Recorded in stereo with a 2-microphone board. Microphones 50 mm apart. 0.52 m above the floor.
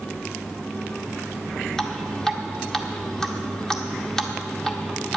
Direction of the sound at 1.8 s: 10° left (ahead or behind).